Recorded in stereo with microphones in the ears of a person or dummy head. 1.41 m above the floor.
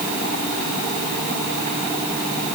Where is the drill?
No drill in this recording.